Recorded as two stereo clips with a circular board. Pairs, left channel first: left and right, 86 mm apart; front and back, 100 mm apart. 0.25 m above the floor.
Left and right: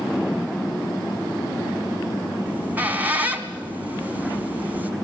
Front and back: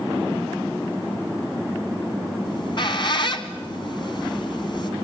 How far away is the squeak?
About 1.7 m.